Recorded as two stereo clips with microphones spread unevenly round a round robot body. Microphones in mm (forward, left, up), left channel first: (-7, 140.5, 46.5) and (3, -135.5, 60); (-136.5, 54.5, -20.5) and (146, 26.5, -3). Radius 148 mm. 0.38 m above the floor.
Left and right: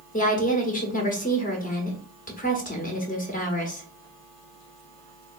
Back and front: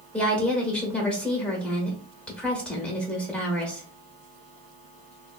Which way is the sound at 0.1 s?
95° left.